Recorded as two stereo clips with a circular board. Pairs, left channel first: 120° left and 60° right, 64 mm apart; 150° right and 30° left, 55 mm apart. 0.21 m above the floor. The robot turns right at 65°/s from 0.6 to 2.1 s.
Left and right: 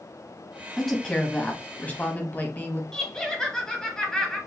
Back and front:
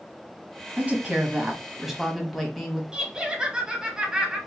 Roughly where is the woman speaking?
Ahead left.